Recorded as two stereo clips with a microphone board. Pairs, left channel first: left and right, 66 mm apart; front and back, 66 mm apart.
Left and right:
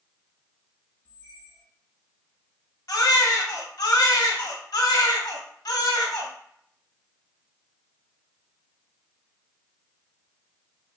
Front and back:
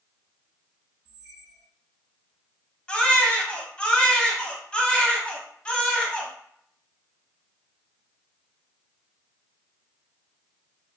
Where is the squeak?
20° left, 1.1 m.